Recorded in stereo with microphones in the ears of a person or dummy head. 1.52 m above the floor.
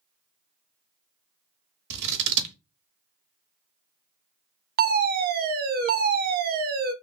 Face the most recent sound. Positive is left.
turn(degrees=-40)  # may be behind; listen again after turning